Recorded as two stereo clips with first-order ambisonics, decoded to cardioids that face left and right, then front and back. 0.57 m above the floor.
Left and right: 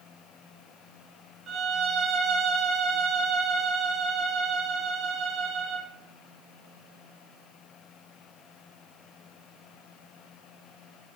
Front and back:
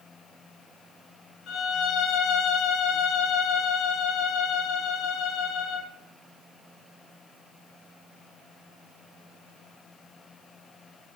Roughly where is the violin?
Ahead right.